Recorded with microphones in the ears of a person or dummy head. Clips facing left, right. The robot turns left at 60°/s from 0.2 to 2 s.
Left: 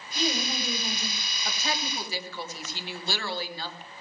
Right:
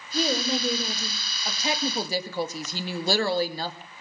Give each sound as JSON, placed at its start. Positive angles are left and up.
{"t": 0.1, "sound": "a woman speaking", "azimuth_deg": -40, "distance_m": 4.5}
{"t": 1.4, "sound": "a woman speaking", "azimuth_deg": -5, "distance_m": 2.5}